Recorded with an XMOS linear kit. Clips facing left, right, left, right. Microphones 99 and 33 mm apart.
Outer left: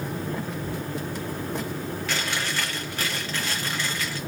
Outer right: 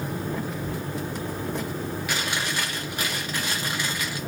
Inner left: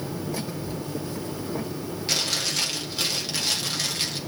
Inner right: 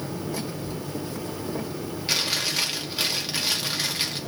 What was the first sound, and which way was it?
Chewing, 15° right (ahead or behind).